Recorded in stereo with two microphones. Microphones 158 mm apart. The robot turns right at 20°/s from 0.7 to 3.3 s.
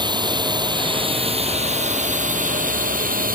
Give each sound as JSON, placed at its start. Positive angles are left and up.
{"t": 0.0, "sound": "a drone", "azimuth_deg": -150}